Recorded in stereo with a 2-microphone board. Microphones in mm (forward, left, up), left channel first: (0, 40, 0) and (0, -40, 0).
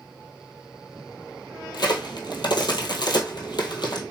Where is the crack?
65° left (ahead or behind), 1.2 m.